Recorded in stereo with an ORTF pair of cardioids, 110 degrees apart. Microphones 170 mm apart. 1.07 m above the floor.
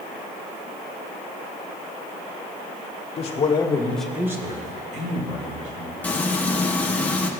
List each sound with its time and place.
3.2 s a man speaking: 40° left, 1.8 m; by 5.9 s 65° right, 2.5 m
6.0 s frying: 10° left, 1.2 m